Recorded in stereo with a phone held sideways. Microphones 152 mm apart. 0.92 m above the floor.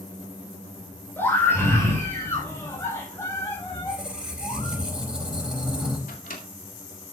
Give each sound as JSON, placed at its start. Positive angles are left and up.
{"t": 1.2, "sound": "a scream", "side_deg": 15, "distance_m": 3.5}
{"t": 3.7, "sound": "a squeak", "side_deg": -5, "distance_m": 4.0}
{"t": 6.1, "sound": "a microwave", "side_deg": 75, "distance_m": 2.0}